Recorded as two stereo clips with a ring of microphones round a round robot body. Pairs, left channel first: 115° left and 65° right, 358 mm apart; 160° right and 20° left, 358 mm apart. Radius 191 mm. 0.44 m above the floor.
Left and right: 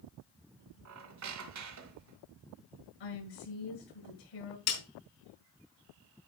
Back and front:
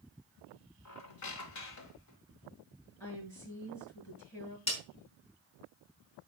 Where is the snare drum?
130° left, 5 m.